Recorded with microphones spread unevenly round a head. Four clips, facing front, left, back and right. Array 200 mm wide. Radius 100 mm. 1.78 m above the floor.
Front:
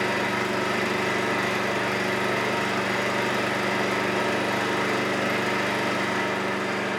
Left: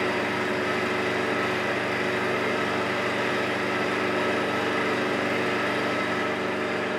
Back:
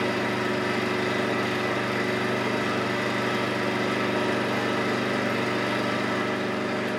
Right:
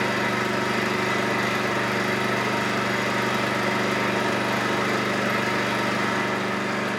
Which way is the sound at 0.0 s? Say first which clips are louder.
Right 2 dB, even; 20° right.